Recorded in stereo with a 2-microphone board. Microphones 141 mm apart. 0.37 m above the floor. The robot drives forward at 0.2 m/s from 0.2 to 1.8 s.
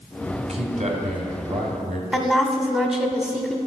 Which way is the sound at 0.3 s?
50° right (ahead or behind).